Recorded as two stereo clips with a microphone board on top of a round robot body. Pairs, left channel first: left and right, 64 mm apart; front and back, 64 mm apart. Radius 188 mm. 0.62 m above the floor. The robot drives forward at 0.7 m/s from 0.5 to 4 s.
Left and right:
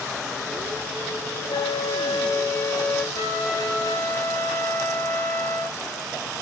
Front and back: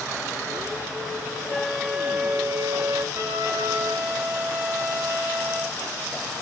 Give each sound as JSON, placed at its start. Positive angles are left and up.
{"t": 1.5, "sound": "a flute", "azimuth_deg": 80, "distance_m": 0.7}
{"t": 3.1, "sound": "a trumpet", "azimuth_deg": 130, "distance_m": 4.5}